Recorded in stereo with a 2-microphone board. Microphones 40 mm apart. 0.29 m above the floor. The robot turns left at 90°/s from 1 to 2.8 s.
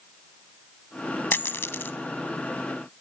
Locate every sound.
1.3 s a dropped coin: 60° left (ahead or behind), 0.5 m; by 2.0 s 55° left (ahead or behind), 0.5 m